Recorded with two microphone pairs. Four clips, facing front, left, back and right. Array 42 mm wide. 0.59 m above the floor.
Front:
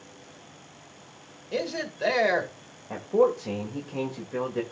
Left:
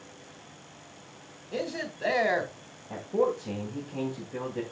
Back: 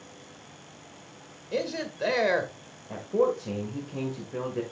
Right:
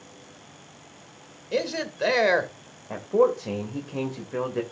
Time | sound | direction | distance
1.5 | a man speaking | 90° right | 1.9 m
2.9 | a man speaking | 70° right | 1.8 m